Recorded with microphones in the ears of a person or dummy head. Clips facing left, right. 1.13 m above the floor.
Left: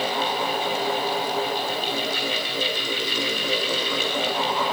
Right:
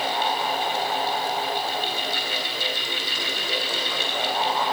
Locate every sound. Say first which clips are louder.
0.0 s a fan: left 1 dB; 70° left (ahead or behind), 3.5 m